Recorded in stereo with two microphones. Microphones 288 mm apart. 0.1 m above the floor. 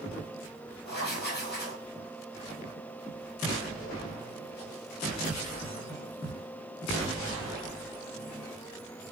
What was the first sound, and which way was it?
Writing, 35° left (ahead or behind).